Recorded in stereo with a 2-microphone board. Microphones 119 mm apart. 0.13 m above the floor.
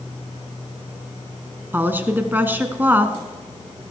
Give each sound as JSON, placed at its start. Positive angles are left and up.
{"t": 1.7, "sound": "a woman speaking", "side_deg": -15, "distance_m": 1.0}